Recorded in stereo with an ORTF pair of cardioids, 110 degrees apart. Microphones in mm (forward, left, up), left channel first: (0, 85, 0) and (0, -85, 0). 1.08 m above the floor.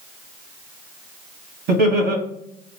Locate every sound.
1.7 s laughter: 70° right, 1.6 m